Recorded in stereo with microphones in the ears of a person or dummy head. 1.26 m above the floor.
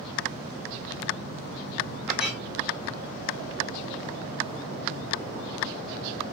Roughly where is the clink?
Centre.